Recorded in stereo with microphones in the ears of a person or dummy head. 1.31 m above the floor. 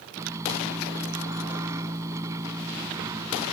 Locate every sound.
0.2 s a microwave: 25° right (ahead or behind)